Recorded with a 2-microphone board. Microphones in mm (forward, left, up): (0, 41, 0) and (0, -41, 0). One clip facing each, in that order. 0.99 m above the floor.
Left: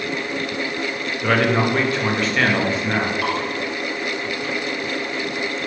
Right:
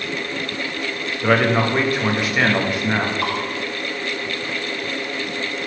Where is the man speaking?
5° right (ahead or behind), 1.0 m.